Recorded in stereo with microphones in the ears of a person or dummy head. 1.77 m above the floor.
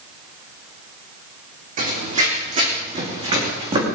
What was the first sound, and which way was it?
Running footsteps, 45° right (ahead or behind).